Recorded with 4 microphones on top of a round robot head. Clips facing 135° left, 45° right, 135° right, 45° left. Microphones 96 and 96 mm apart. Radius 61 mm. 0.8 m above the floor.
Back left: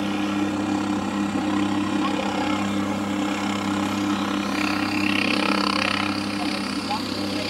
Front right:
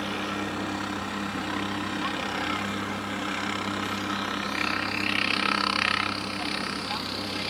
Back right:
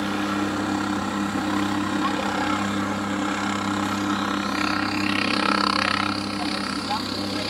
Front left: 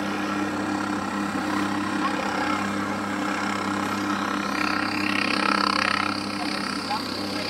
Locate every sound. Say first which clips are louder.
0.0 s a helicopter: back left 7 dB, back right 2 dB; 145° left